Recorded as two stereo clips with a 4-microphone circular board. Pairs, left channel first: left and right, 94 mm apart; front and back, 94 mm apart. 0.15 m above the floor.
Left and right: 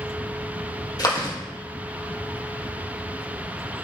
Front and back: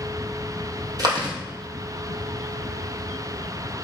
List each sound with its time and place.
1.0 s chewing: 135° left, 2.5 m